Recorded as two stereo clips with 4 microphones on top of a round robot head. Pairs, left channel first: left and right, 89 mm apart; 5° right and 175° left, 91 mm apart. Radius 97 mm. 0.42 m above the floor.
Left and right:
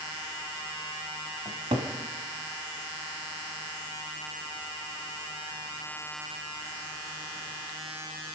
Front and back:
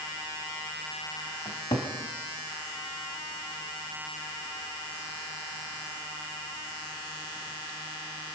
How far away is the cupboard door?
About 1.7 m.